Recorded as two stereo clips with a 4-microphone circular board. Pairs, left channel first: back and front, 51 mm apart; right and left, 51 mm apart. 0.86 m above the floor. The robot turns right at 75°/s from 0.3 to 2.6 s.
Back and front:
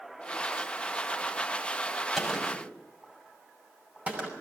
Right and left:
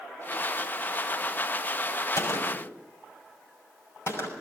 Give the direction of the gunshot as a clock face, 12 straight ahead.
3 o'clock.